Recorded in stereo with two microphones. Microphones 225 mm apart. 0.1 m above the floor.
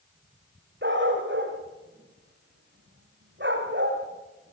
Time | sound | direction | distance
0.8 | a dog barking | 55° right (ahead or behind) | 8 m